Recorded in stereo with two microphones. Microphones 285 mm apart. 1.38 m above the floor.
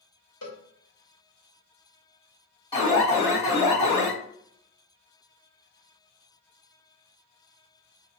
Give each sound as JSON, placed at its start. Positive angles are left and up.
{"t": 0.4, "sound": "a cowbell", "side_deg": 60, "distance_m": 1.0}
{"t": 2.7, "sound": "an alarm", "side_deg": 20, "distance_m": 1.8}